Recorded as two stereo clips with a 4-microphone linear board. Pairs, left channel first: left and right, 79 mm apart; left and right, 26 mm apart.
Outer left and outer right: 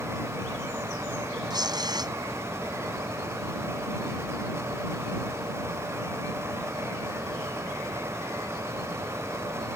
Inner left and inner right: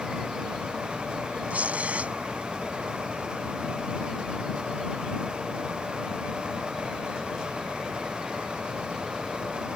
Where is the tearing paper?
60° right (ahead or behind).